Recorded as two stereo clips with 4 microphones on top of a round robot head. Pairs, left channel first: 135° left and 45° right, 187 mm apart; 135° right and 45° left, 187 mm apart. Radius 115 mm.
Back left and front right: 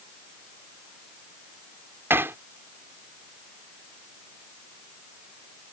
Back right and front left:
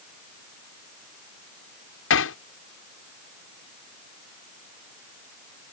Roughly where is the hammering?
Behind right.